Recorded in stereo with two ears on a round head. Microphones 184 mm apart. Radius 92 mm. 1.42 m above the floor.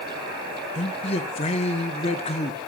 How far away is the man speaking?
About 1.2 m.